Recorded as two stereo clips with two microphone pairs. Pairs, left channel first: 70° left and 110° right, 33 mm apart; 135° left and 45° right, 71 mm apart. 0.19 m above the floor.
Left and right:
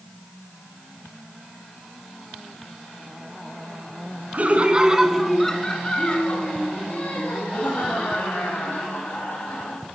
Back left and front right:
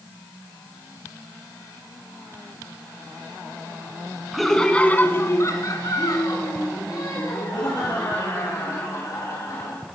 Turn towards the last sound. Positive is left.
turn(degrees=100)